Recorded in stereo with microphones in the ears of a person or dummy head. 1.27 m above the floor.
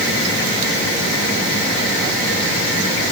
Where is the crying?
I don't hear crying.